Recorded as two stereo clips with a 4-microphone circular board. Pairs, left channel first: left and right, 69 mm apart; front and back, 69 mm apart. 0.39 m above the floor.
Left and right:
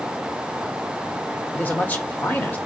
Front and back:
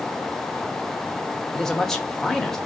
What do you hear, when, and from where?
1.5 s a man speaking: 75° left, 1.1 m